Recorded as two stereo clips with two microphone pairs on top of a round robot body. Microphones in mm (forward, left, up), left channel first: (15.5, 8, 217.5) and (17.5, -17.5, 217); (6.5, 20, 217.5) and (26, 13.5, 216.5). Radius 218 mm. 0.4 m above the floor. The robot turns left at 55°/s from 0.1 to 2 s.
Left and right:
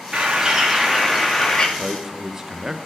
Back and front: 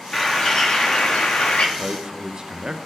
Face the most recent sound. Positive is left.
turn(degrees=-25)